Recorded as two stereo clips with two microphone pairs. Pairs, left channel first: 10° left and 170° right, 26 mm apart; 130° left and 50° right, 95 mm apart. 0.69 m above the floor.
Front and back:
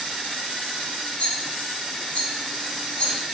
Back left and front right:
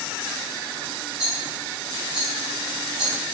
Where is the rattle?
30° left, 0.9 m.